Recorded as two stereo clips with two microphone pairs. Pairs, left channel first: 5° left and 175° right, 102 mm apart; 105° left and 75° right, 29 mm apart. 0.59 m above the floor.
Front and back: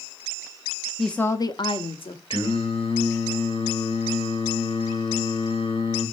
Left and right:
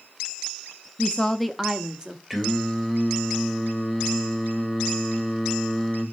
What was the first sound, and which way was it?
A woman speaking, 100° left.